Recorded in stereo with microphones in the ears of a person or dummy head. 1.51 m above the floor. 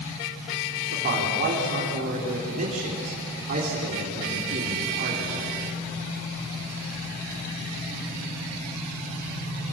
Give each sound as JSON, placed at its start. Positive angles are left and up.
{"t": 0.9, "sound": "a man speaking", "side_deg": -40, "distance_m": 3.5}